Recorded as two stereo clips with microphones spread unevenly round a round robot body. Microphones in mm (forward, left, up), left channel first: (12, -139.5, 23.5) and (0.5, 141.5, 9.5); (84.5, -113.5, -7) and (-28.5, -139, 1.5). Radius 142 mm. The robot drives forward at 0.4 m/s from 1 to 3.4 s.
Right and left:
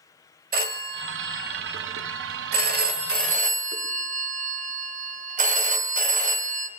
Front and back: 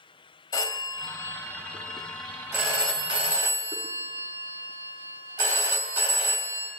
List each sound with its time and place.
0.5 s a phone ringing: 55° left, 0.8 m; by 6.7 s 145° left, 1.0 m